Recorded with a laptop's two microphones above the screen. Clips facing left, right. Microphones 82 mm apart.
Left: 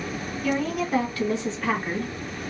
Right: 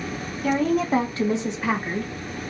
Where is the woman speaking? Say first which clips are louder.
Right 5 dB; 45° right (ahead or behind), 1.3 m; by 2.1 s 10° left (ahead or behind), 0.8 m.